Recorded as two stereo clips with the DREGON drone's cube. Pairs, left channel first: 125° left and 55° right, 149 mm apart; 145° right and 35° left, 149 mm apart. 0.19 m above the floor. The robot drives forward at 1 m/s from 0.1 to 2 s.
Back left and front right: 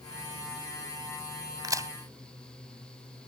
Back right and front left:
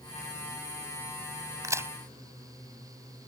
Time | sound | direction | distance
1.6 | a crack | 15° right | ?